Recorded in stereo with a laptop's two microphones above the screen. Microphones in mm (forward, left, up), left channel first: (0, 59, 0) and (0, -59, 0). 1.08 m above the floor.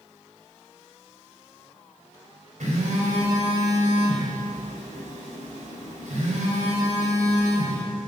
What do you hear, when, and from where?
2.6 s a phone buzzing: 70° right (ahead or behind), 4 m